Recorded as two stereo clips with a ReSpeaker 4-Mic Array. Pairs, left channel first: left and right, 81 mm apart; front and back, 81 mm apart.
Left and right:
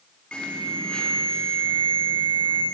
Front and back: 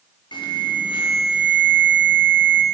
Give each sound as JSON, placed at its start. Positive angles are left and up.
{"t": 0.3, "sound": "an alarm", "azimuth_deg": 10, "distance_m": 5.5}